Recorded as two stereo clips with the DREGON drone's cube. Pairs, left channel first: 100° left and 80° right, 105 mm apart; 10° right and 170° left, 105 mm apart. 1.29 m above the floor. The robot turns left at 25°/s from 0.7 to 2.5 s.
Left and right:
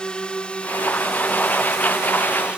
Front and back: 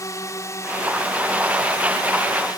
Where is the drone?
25° left; by 2.6 s 5° right.